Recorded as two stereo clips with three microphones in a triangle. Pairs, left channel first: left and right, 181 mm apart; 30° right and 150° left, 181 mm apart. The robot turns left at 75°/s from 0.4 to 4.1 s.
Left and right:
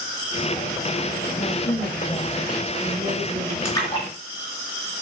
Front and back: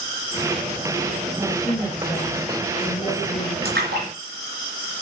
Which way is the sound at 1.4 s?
70° left.